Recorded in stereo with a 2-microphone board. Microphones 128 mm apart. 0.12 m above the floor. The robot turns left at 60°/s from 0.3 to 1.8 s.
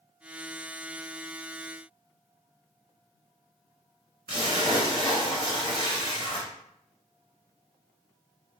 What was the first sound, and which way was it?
A splash, 35° left (ahead or behind).